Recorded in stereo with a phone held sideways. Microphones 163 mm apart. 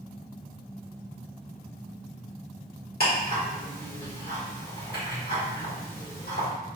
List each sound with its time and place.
3.0 s ticking: 70° left (ahead or behind), 1.5 m